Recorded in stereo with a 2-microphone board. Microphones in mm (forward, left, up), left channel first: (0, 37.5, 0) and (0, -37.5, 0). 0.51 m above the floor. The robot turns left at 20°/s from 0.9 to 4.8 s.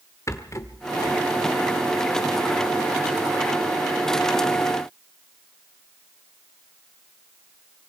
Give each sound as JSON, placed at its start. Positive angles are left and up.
{"t": 0.3, "sound": "a rattle", "side_deg": 40, "distance_m": 1.2}